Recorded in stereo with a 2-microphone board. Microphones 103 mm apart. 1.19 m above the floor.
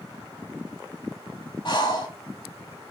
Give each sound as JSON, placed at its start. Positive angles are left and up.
{"t": 1.6, "sound": "breathing", "side_deg": 45, "distance_m": 1.5}